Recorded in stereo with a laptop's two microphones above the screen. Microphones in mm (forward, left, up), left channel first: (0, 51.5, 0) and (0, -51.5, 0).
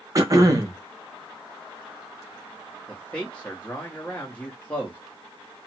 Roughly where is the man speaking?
Centre.